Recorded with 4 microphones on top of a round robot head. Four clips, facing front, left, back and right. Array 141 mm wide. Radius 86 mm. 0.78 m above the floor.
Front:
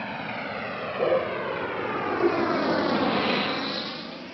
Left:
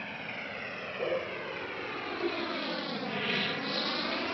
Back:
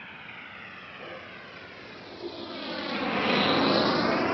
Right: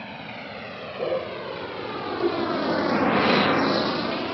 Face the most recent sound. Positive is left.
turn(degrees=-155)